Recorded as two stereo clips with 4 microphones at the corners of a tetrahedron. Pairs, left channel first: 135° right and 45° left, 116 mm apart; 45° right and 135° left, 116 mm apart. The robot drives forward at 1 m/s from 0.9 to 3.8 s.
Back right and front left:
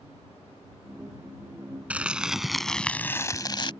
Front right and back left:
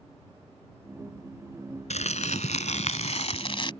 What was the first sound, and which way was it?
Crumpling, 35° right.